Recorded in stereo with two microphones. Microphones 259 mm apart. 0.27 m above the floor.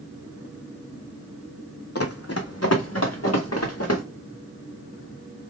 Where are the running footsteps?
65° left (ahead or behind), 0.6 m; by 4.0 s 70° left (ahead or behind), 1.9 m.